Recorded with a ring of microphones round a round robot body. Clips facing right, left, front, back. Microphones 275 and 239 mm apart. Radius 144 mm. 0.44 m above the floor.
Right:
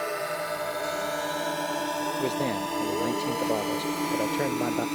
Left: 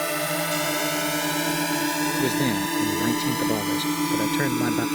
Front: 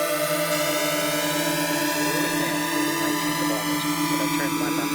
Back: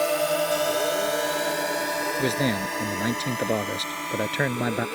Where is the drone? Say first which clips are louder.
Left 4 dB, back 1 dB; 65° left; by 5.0 s 25° left.